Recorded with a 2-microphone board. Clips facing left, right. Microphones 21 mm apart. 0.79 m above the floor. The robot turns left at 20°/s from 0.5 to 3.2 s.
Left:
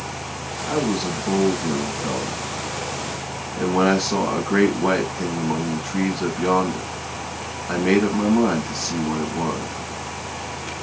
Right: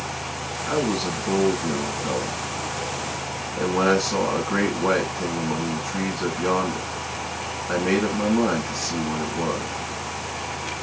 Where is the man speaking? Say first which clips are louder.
Left 1 dB; 165° left, 5.5 m; by 9.7 s 115° left, 5.5 m.